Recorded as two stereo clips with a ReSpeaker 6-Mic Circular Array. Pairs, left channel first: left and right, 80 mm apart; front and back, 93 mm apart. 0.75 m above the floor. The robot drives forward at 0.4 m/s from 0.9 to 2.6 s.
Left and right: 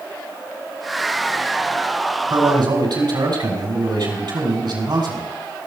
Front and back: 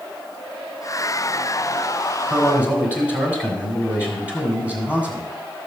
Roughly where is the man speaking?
Right.